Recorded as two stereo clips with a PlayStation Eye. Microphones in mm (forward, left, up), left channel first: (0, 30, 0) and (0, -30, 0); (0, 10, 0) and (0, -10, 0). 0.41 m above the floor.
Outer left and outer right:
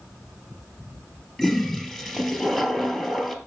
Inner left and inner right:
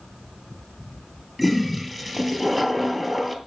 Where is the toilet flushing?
5° right (ahead or behind), 2 m.